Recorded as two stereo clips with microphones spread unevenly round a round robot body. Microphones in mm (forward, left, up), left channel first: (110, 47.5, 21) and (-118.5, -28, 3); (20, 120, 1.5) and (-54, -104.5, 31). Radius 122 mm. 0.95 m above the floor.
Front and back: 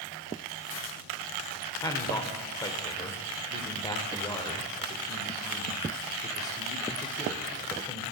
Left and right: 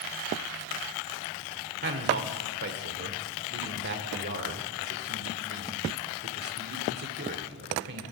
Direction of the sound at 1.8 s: 55° right.